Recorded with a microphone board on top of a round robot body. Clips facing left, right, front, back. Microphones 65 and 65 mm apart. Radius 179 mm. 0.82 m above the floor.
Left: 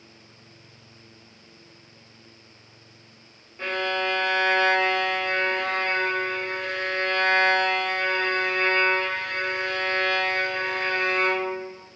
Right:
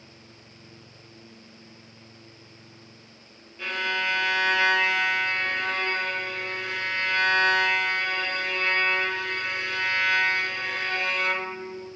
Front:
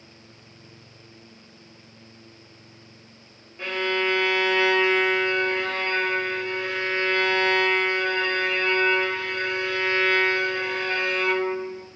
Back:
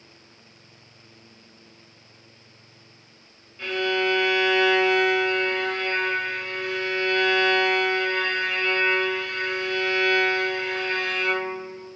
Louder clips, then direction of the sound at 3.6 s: Left 2 dB, back 1 dB; 50° left.